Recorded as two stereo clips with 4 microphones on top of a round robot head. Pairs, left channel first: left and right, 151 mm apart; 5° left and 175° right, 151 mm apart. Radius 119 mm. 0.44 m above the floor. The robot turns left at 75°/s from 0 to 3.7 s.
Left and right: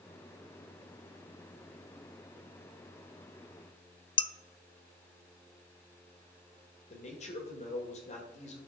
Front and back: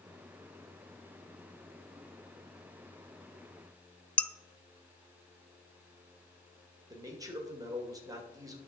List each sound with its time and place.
4.2 s dishes clattering: 80° left, 0.6 m
6.9 s a man speaking: 120° left, 2.5 m